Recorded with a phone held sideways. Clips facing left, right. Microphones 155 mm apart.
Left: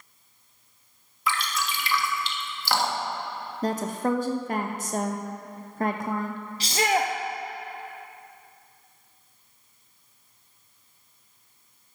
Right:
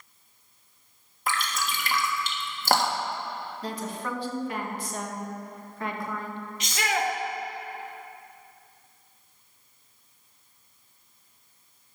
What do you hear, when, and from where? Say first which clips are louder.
1.3 s dripping: left 1 dB; 45° right (ahead or behind), 1.3 m
3.6 s a woman speaking: left 9 dB; 45° left (ahead or behind), 0.8 m
6.6 s a shout: left 4 dB; 35° left (ahead or behind), 0.6 m